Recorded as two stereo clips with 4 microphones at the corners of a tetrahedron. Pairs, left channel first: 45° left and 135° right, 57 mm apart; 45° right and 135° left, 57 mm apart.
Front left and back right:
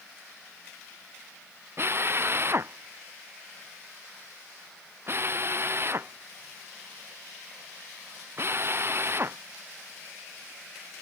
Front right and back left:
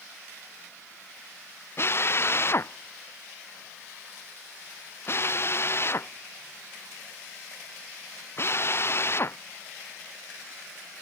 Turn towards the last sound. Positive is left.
turn(degrees=-90)